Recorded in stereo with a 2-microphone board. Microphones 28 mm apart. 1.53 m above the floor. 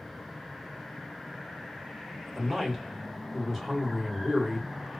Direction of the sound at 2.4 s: Centre (ahead or behind).